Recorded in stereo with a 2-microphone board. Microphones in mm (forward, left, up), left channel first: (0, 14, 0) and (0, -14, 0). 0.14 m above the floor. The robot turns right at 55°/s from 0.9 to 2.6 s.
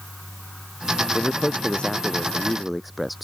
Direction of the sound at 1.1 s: 100° left.